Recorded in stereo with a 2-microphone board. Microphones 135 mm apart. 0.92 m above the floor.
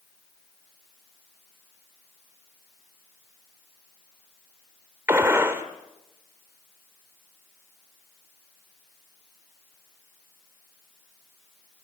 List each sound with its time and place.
5.1 s a gunshot: 20° right (ahead or behind), 1.9 m